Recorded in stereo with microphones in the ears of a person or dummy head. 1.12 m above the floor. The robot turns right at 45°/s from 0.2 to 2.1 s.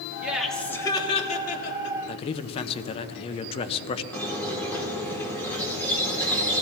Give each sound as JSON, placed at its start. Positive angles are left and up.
{"t": 0.2, "sound": "laughter", "azimuth_deg": -15, "distance_m": 2.0}
{"t": 2.1, "sound": "a man speaking", "side_deg": 25, "distance_m": 0.8}
{"t": 4.1, "sound": "a squeak", "side_deg": 20, "distance_m": 2.0}